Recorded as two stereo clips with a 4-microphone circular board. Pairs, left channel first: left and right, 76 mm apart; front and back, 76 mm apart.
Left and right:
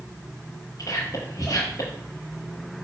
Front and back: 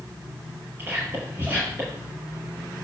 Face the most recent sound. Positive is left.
turn(degrees=120)